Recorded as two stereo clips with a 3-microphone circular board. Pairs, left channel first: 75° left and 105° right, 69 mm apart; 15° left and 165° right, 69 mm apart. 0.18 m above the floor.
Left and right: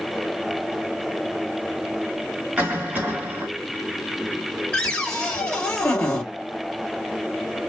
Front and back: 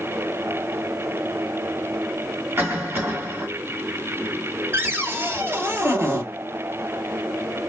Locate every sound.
2.6 s a cough: 150° right, 1.6 m
4.7 s a cupboard door: 140° left, 2.0 m